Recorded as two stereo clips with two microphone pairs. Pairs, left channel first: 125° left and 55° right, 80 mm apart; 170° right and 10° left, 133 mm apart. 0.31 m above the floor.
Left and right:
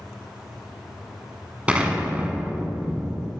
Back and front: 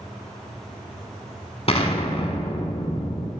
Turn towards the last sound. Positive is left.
turn(degrees=-130)